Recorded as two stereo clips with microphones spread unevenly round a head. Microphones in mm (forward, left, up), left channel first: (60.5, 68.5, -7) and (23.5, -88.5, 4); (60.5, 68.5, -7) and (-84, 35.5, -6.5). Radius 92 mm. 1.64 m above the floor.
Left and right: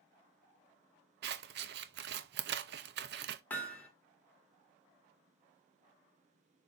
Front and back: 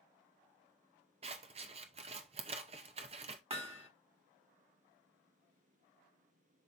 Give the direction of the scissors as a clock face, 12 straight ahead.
4 o'clock.